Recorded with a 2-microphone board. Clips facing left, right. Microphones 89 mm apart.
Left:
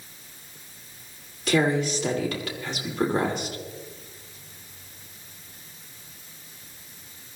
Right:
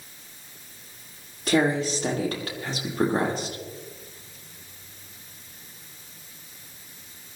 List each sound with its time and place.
1.5 s a woman speaking: 40° right (ahead or behind), 5 m